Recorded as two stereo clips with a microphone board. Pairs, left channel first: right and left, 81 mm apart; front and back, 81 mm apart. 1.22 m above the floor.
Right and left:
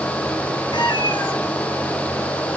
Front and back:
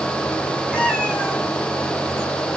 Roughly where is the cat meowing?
Right.